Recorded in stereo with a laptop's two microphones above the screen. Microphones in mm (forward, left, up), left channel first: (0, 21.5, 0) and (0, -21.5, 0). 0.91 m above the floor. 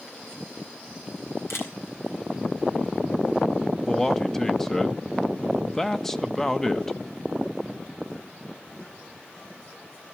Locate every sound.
1.5 s a camera shutter: 80° left, 4 m
3.9 s a man speaking: 10° left (ahead or behind), 1.1 m